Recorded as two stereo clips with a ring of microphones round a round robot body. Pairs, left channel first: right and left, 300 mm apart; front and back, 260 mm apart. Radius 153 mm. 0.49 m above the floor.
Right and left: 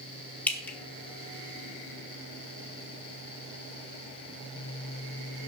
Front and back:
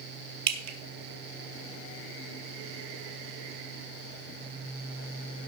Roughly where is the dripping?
Behind.